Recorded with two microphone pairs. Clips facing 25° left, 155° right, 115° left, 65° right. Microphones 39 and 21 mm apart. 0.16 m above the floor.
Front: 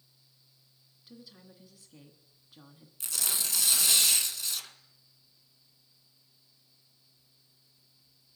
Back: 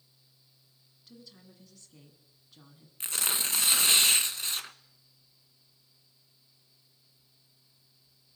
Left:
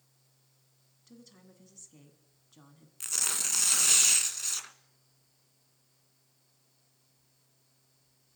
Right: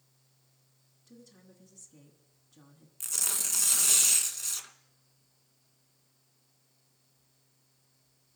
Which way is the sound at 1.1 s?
85° left.